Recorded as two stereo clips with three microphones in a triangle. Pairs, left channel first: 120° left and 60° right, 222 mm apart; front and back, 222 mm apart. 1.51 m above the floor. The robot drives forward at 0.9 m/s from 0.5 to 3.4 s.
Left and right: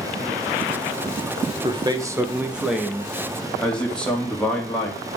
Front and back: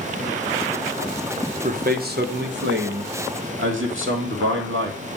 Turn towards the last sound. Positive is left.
turn(degrees=-155)